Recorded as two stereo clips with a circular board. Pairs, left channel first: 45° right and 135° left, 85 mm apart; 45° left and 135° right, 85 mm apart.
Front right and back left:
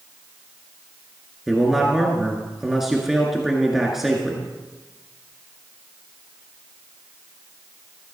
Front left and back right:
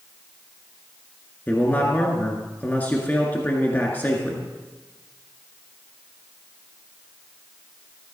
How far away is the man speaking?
About 1.6 m.